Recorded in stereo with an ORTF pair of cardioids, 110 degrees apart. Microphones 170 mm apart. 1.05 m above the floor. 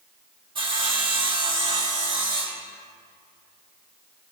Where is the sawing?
30° right, 1.9 m.